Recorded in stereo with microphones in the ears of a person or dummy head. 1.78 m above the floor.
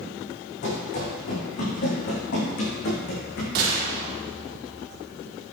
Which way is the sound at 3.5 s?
50° right (ahead or behind).